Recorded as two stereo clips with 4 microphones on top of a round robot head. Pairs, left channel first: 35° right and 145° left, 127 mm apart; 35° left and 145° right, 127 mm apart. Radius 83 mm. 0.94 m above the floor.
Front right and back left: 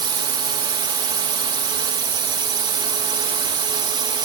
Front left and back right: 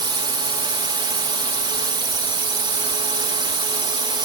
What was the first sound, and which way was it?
A drone, straight behind.